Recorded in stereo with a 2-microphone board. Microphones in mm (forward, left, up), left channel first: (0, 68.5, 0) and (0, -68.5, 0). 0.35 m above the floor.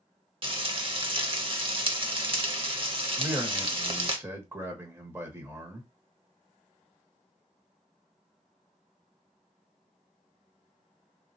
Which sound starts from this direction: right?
Frying, at 0.4 s.